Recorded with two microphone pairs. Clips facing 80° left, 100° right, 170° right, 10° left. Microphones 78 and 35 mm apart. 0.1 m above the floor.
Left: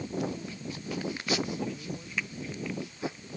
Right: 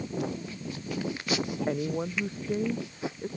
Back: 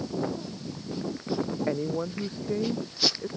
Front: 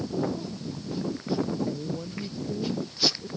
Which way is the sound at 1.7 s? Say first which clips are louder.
Right 9 dB, back 4 dB; 130° right.